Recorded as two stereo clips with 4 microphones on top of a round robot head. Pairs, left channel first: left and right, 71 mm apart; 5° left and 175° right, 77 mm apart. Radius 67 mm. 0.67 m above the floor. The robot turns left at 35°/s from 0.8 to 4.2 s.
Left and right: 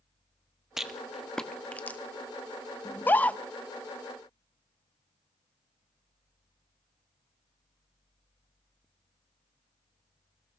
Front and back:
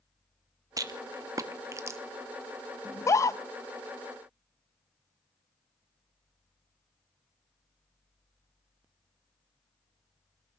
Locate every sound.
0.8 s a rattle: 170° right, 1.1 m; by 2.0 s 145° left, 1.1 m
2.9 s a scream: 45° left, 1.1 m; by 3.4 s 25° left, 1.1 m